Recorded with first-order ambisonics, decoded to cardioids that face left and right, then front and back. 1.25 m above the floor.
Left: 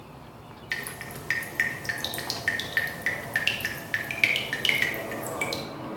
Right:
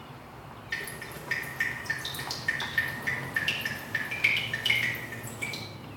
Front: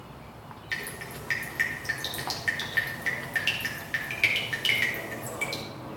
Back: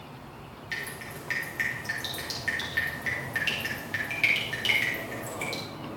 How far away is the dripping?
About 2.5 m.